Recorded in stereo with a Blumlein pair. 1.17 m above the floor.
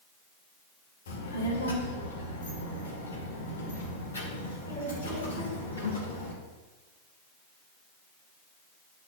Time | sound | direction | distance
1.1 | a child speaking | 65° left | 1.8 m